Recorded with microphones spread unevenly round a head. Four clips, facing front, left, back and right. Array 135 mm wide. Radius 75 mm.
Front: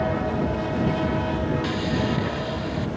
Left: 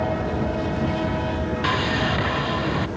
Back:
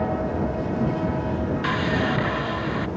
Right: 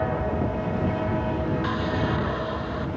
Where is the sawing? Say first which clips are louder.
Left 3 dB, back 1 dB; 110° left.